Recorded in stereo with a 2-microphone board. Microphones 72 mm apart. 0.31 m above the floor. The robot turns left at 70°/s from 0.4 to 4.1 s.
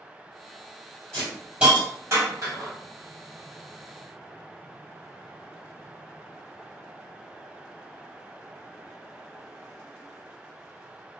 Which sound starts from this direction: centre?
A hiss, at 1.1 s.